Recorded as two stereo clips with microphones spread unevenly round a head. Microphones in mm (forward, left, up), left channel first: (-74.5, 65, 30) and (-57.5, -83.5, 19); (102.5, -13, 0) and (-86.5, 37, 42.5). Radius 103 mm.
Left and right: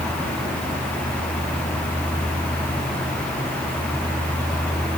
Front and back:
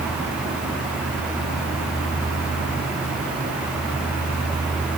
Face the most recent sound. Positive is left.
No sound to turn to.